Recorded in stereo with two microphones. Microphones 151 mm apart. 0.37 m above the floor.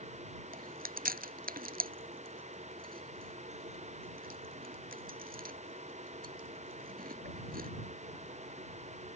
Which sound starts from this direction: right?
Chewing, at 0.5 s.